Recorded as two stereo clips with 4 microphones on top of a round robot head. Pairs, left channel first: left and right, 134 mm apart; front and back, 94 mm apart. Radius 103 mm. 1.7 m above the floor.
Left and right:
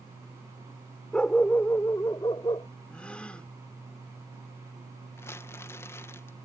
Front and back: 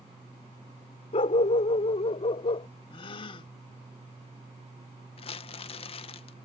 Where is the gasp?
5° left.